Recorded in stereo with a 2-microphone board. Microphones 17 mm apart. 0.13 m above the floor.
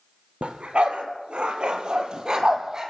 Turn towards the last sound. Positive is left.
turn(degrees=-25)  # may be behind; listen again after turning